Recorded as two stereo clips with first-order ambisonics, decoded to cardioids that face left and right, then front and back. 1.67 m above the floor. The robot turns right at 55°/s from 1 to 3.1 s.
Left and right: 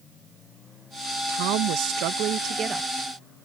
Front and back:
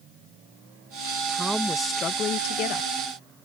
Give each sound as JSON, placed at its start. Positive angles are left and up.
{"t": 1.3, "sound": "a woman speaking", "azimuth_deg": -100}